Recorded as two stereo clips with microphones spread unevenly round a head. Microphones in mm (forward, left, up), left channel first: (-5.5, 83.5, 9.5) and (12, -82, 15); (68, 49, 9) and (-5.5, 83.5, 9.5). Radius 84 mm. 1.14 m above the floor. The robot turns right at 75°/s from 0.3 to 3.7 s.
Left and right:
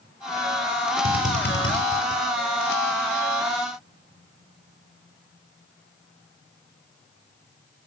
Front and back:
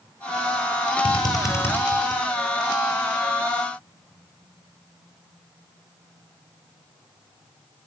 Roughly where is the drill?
Ahead.